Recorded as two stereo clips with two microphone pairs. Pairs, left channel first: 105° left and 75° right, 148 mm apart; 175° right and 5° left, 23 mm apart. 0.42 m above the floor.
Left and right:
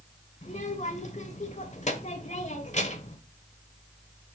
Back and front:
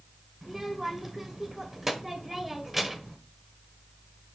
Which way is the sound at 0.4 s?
80° left.